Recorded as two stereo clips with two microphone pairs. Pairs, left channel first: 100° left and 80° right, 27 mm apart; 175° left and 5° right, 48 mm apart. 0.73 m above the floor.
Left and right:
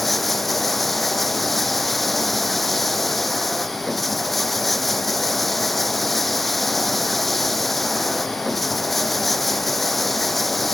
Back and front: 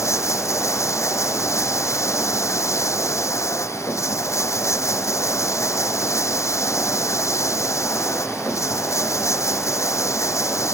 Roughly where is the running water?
Behind.